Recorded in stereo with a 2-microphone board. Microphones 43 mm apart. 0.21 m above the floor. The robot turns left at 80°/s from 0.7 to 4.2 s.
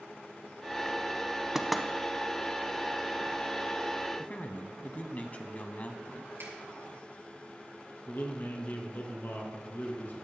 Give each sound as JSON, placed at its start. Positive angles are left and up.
{"t": 1.6, "sound": "knocking", "side_deg": -10, "distance_m": 0.8}
{"t": 4.2, "sound": "a man speaking", "side_deg": 35, "distance_m": 1.1}
{"t": 6.4, "sound": "a finger snap", "side_deg": -70, "distance_m": 3.5}
{"t": 8.1, "sound": "a man speaking", "side_deg": 50, "distance_m": 2.5}